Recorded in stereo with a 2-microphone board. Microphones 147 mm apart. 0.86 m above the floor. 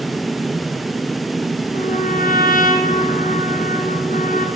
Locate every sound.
1.7 s a trumpet: 75° left (ahead or behind), 6 m